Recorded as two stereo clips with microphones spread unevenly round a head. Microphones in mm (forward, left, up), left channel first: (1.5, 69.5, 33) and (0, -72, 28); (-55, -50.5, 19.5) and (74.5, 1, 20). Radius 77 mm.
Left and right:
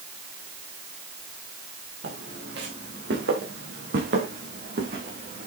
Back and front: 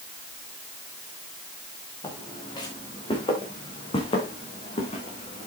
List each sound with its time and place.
2.0 s footsteps: 95° right, 5.5 m; by 5.5 s 115° right, 4.5 m